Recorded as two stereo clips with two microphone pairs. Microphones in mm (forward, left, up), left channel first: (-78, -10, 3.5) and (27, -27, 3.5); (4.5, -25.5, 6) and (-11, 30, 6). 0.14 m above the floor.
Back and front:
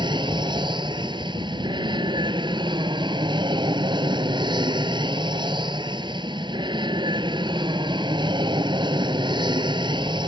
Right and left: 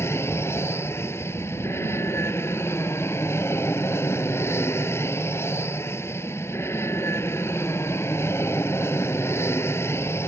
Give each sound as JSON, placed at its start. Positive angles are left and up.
{"t": 0.0, "sound": "an aircraft", "azimuth_deg": -45}